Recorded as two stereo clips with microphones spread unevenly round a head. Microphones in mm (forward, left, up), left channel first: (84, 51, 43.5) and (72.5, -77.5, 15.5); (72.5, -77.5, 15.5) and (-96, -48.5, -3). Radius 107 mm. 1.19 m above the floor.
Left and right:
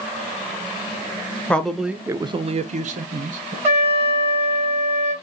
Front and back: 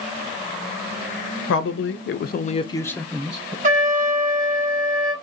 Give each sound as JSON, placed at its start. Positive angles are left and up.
{"t": 1.5, "sound": "a man speaking", "azimuth_deg": 0, "distance_m": 0.7}
{"t": 3.6, "sound": "a trumpet", "azimuth_deg": 175, "distance_m": 1.2}